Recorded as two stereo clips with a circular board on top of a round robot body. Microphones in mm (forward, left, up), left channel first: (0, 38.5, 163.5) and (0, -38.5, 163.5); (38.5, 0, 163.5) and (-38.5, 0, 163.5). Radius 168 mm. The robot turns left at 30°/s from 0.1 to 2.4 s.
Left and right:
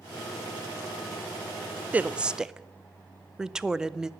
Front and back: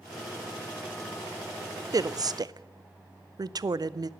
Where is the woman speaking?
155° right, 0.7 m; by 4.1 s 170° right, 0.7 m.